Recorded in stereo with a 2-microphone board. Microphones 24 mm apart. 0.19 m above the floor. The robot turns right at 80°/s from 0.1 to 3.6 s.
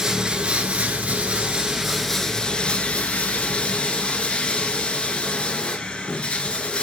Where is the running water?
155° right, 1.1 m; by 6.8 s 125° left, 1.1 m.